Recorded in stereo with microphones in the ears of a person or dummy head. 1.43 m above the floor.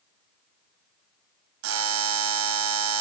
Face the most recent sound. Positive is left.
turn(degrees=-65)  # may be behind; listen again after turning